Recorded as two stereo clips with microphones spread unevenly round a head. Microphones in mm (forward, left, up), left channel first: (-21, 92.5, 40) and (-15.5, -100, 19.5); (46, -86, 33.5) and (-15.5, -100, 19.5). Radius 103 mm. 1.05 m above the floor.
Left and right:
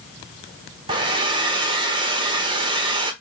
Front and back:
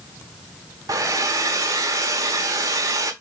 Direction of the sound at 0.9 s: 155° right.